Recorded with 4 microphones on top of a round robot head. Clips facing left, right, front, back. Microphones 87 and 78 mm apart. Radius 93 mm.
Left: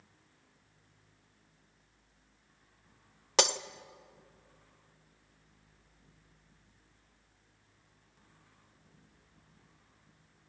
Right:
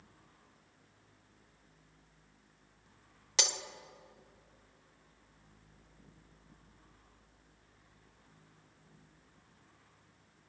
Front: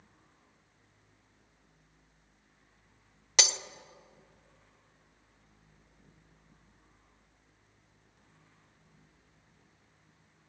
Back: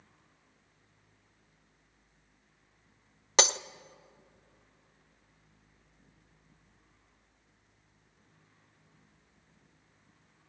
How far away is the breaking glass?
About 0.5 m.